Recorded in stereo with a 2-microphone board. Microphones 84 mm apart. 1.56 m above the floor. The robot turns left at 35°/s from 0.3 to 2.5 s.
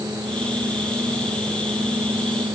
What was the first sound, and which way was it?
Only background noise.